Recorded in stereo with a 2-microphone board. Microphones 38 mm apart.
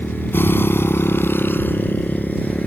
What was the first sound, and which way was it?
A motorcycle, 60° left (ahead or behind).